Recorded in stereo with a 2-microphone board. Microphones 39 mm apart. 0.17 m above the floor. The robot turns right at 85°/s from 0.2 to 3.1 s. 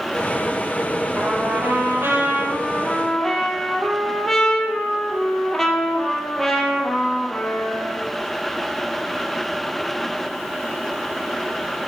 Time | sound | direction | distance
1.1 | a trumpet | 160° right | 4 m